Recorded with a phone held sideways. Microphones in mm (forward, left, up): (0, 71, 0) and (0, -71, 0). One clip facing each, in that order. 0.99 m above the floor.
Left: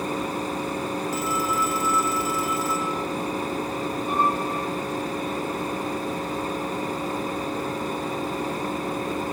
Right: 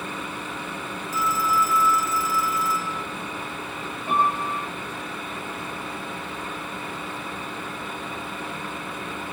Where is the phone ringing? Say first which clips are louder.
Right 6 dB; 60° left (ahead or behind), 3.5 m.